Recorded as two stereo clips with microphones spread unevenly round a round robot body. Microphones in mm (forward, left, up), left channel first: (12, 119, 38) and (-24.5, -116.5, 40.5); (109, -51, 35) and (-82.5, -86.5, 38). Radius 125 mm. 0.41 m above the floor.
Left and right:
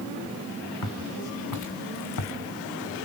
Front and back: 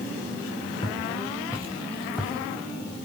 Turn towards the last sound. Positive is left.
turn(degrees=95)